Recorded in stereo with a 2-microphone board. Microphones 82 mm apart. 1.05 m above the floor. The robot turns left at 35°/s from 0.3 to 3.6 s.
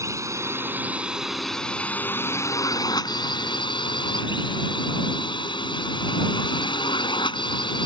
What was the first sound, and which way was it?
A drone, 140° right.